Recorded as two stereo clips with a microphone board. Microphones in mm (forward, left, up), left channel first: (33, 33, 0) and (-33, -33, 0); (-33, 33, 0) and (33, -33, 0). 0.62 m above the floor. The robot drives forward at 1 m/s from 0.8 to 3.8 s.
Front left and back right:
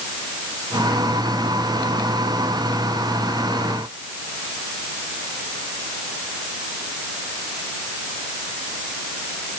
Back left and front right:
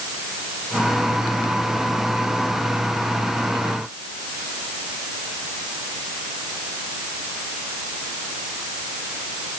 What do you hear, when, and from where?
Only background noise.